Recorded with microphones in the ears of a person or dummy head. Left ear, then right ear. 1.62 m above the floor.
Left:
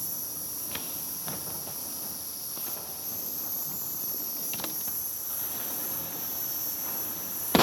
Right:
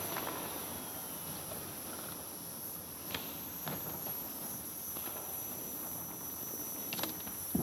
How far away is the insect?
About 1.2 m.